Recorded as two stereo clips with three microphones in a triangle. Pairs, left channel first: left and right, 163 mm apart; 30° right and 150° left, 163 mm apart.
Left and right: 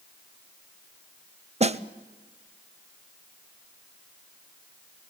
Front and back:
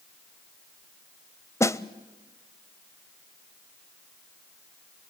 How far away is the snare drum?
About 0.5 m.